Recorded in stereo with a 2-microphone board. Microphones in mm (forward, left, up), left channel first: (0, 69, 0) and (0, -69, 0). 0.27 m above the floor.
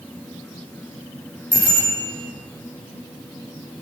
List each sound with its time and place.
1.5 s a bicycle bell: 40° left (ahead or behind), 7.5 m